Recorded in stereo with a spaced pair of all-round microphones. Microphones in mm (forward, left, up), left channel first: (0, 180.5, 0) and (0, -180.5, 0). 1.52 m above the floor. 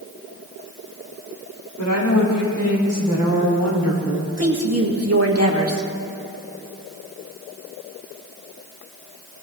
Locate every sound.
1.8 s a woman speaking: 55° left (ahead or behind), 4.5 m; by 4.3 s 75° left (ahead or behind), 3 m
4.4 s a woman speaking: 40° right (ahead or behind), 1.9 m